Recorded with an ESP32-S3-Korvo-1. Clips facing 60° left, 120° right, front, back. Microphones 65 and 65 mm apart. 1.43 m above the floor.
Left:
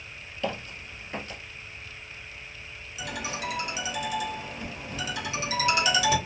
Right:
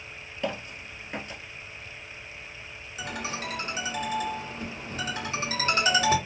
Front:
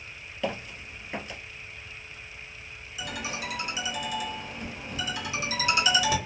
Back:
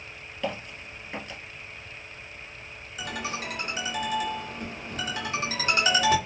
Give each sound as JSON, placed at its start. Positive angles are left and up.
{"t": 0.4, "sound": "footsteps", "azimuth_deg": -85, "distance_m": 1.5}
{"t": 3.0, "sound": "a ringtone", "azimuth_deg": -155, "distance_m": 1.1}